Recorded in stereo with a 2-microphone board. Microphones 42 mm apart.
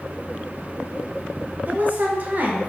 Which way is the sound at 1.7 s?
40° right (ahead or behind).